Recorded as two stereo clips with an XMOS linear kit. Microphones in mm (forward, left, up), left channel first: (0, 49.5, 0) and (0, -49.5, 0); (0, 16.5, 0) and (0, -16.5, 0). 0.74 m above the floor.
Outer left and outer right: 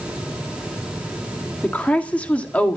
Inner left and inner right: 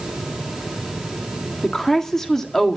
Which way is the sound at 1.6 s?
15° left (ahead or behind).